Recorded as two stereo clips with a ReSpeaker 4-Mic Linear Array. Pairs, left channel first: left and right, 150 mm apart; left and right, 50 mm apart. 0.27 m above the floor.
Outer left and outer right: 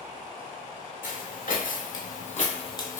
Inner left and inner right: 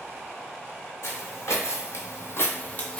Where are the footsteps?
65° left (ahead or behind), 1.0 m; by 3.0 s 20° left (ahead or behind), 0.5 m.